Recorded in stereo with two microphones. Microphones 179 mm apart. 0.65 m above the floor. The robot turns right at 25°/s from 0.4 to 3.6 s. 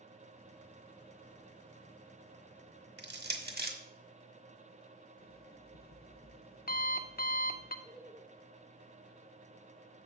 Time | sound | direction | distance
3.0 | crushing | 75° right (ahead or behind) | 0.9 m
5.2 | an alarm clock | 60° left (ahead or behind) | 0.6 m
7.8 | laughter | 10° right (ahead or behind) | 0.5 m